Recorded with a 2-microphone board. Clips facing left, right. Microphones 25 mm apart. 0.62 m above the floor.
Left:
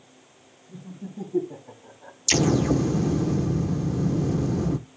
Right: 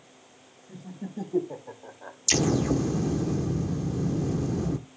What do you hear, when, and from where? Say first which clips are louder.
0.7 s laughter: right 1 dB; 75° right (ahead or behind), 3.5 m; by 2.2 s 50° right (ahead or behind), 1.2 m
2.3 s an explosion: left 3 dB; 15° left (ahead or behind), 0.6 m